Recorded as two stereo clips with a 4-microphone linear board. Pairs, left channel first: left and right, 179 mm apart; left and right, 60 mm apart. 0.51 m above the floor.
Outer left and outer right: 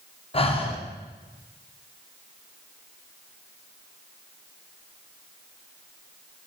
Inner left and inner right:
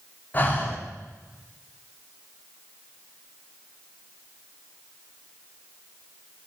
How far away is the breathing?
About 0.5 m.